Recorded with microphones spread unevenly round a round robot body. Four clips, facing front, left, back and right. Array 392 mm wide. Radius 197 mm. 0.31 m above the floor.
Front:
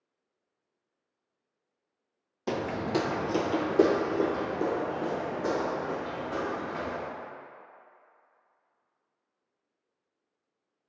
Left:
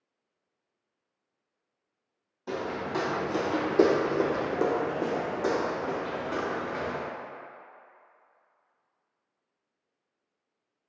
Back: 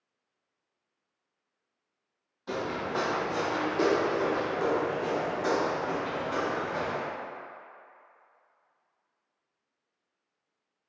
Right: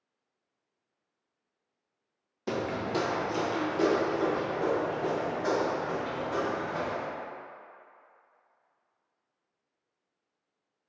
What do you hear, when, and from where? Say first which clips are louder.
2.5 s footsteps: right 1 dB, front 2 dB; 45° right, 0.6 m; by 7.0 s 80° left, 2.5 m